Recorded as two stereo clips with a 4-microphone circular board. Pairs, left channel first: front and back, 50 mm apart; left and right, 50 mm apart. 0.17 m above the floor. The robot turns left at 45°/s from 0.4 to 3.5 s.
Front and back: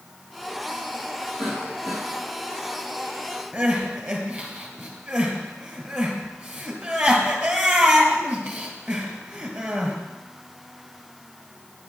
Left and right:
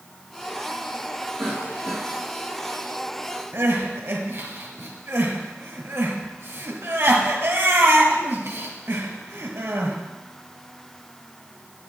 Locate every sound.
1.4 s a cough: 115° right, 3.5 m; by 2.0 s 140° right, 3.5 m
3.5 s crying: 125° right, 1.6 m